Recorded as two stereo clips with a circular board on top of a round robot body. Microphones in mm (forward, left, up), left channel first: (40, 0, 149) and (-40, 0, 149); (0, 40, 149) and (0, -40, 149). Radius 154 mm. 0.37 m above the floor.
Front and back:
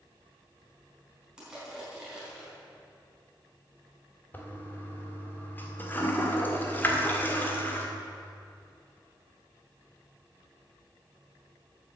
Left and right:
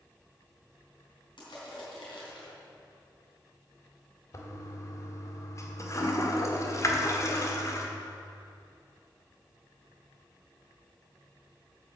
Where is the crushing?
100° left, 4.5 m.